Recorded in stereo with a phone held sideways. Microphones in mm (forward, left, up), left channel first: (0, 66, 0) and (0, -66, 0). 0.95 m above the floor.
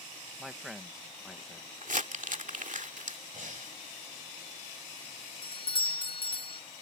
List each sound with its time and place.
0.4 s a man speaking: centre (ahead or behind)
1.8 s crumpling: 70° right (ahead or behind)
3.3 s breathing: 75° right (ahead or behind)
5.4 s a doorbell: 40° left (ahead or behind)